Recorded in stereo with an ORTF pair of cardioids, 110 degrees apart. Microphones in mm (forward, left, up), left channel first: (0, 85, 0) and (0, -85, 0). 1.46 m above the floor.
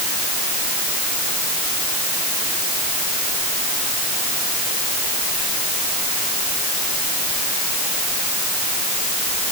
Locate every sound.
Only background noise.